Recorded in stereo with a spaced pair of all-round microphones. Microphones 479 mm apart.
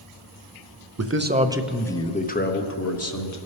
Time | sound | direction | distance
1.0 | a man speaking | 35° right (ahead or behind) | 0.6 m